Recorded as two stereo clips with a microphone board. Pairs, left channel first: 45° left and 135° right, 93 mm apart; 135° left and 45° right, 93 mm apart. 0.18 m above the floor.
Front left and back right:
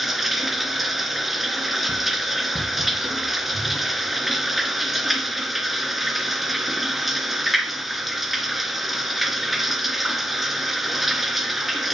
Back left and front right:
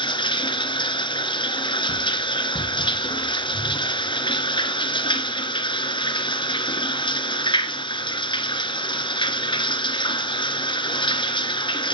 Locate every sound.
0.0 s running water: 135° left, 2.0 m